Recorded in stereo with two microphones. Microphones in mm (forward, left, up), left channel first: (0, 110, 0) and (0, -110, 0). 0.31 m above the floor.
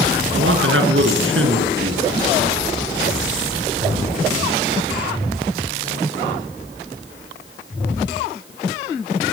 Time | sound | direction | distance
0.3 | a man speaking | 70° right (ahead or behind) | 5 m